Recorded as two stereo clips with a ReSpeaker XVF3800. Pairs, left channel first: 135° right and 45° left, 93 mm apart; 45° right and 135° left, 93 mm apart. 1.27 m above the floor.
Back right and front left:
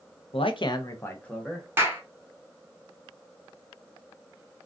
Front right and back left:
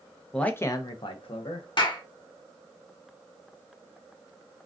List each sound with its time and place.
0.3 s a man speaking: 130° right, 0.6 m; by 1.7 s 45° right, 1.0 m
1.8 s a clap: 20° right, 0.8 m